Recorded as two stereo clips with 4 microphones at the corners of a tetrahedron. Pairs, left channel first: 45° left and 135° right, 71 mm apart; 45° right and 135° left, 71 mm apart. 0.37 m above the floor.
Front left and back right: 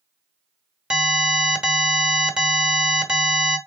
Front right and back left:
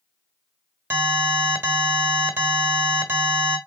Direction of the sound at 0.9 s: 155° left.